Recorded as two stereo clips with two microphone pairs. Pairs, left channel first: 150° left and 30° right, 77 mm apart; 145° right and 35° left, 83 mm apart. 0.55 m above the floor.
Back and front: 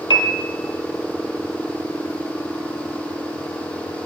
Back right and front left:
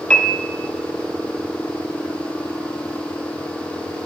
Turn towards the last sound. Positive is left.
turn(degrees=140)